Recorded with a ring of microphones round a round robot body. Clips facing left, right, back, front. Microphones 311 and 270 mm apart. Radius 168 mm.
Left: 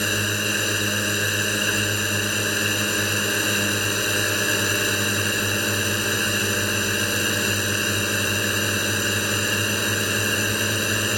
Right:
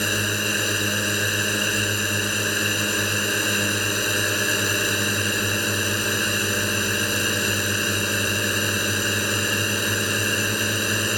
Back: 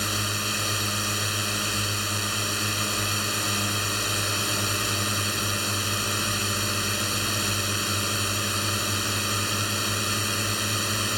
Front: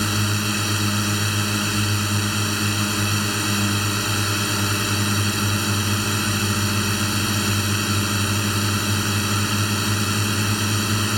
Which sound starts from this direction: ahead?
A drone, at 0.0 s.